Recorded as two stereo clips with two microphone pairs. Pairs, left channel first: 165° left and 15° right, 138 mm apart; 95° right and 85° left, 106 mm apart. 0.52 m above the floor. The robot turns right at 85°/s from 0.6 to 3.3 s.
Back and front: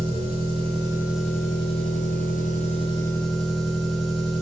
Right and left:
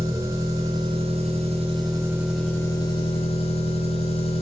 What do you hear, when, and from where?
0.0 s an engine running: 25° left, 3.5 m; by 4.4 s 105° right, 3.5 m